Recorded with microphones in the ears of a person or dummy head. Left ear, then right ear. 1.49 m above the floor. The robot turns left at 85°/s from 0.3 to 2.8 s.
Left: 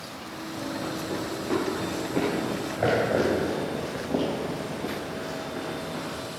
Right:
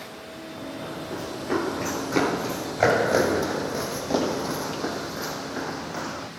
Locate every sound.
0.6 s running footsteps: 25° left (ahead or behind), 4 m; by 6.3 s 50° right (ahead or behind), 3.5 m